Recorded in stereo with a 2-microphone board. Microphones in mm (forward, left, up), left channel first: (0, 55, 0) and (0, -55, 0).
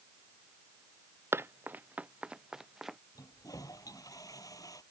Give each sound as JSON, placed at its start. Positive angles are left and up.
{"t": 1.3, "sound": "running footsteps", "side_deg": -20}
{"t": 3.1, "sound": "a toilet flushing", "side_deg": 35}